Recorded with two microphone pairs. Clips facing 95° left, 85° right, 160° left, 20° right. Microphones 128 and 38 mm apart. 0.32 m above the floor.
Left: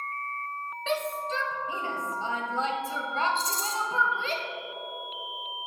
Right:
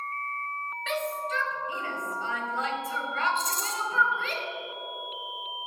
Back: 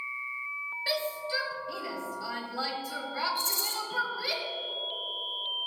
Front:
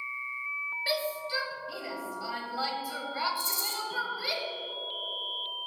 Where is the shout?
60° left, 1.8 m.